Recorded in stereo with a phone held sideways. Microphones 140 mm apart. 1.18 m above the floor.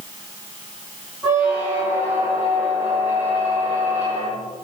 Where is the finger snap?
No finger snap in this recording.